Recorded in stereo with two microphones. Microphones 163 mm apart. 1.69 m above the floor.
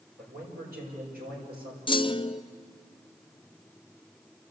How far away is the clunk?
About 0.5 m.